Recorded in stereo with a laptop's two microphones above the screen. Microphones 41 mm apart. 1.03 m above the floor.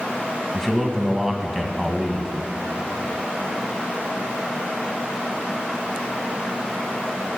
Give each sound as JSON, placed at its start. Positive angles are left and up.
{"t": 0.5, "sound": "a man speaking", "side_deg": 5, "distance_m": 1.1}